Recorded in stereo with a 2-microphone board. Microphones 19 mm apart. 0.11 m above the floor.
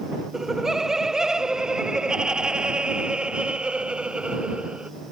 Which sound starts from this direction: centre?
Laughter, at 0.3 s.